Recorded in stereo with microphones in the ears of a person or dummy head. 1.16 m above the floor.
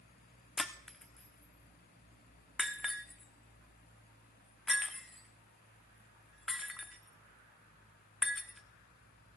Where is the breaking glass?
Centre (ahead or behind), 1.1 m.